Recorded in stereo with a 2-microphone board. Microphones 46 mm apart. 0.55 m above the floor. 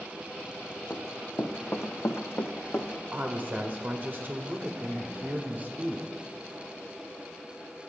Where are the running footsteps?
40° left (ahead or behind), 1.1 m; by 2.9 s 55° left (ahead or behind), 1.4 m.